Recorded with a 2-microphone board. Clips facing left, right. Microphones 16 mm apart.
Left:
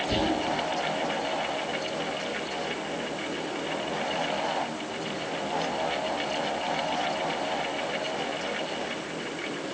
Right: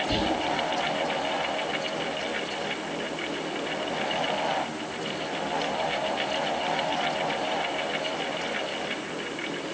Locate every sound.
0.1 s whispering: 50° right (ahead or behind), 1.7 m